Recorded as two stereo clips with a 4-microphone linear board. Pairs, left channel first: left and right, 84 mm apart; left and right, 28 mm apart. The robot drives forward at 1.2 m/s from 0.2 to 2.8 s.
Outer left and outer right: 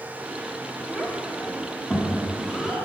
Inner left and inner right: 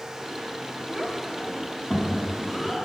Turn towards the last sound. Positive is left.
turn(degrees=-5)  # may be behind; listen again after turning